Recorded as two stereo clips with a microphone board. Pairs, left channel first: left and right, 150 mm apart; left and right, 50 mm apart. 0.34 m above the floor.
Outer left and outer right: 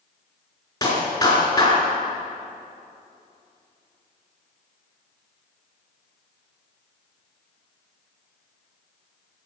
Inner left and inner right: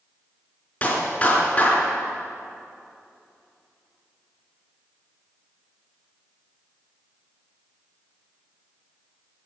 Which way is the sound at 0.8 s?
25° left (ahead or behind).